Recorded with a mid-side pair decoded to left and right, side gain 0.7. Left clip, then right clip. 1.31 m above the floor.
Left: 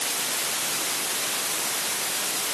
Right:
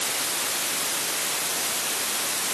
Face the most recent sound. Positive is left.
No sound to turn to.